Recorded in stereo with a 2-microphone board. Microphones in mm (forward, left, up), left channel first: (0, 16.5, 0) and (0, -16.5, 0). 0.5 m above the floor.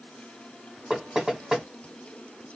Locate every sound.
0.9 s knocking: 10° right (ahead or behind), 1.3 m